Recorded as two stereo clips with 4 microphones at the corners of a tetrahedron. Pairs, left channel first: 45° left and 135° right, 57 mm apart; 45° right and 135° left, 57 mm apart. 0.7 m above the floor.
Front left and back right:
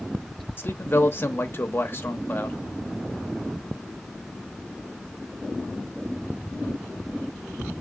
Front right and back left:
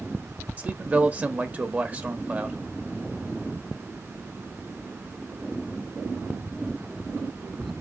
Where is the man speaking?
80° left, 0.9 m.